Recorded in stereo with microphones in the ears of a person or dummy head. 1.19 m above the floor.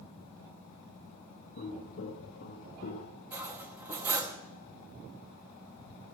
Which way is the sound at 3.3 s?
15° right (ahead or behind).